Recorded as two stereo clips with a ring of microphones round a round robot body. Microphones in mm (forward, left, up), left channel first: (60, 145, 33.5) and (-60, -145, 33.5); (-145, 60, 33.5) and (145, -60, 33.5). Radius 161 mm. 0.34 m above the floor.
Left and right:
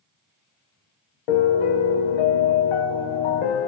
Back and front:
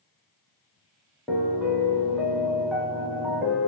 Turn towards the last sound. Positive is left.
turn(degrees=65)